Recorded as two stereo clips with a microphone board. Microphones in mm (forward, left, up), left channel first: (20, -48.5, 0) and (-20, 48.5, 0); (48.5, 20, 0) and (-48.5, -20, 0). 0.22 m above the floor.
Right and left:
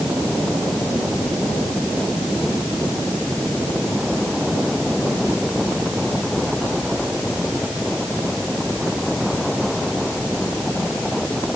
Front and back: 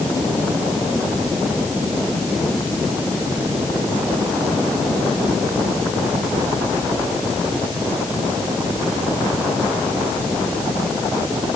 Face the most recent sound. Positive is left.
No sound to turn to.